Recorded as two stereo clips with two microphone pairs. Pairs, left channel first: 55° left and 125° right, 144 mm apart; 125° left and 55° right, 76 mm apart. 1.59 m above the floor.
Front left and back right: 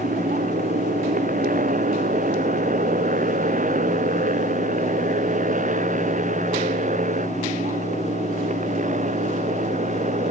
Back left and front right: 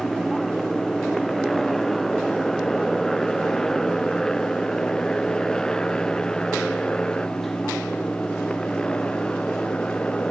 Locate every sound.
0.0 s a motorcycle: 145° right; by 10.3 s 160° right